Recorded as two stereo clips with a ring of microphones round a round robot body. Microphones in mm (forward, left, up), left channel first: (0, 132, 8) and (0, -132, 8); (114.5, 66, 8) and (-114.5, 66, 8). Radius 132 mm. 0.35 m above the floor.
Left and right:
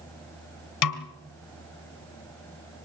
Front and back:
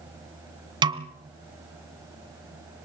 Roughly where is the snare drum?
Left.